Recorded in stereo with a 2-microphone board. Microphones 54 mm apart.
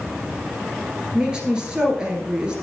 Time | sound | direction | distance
1.1 | a woman speaking | 15° right (ahead or behind) | 2 m